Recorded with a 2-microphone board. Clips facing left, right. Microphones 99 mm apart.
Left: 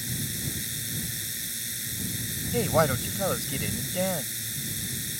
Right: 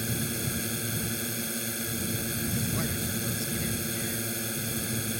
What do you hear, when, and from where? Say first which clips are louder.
0.0 s a drone: right 4 dB; 55° right (ahead or behind)
2.5 s a woman speaking: left 14 dB; 75° left (ahead or behind)